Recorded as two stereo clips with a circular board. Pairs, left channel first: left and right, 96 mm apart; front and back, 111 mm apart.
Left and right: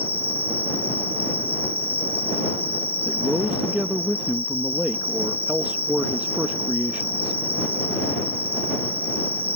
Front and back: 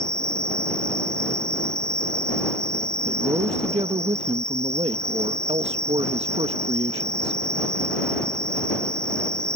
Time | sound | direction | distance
0.0 | an insect | 85° right | ?
3.0 | a man speaking | 160° right | ?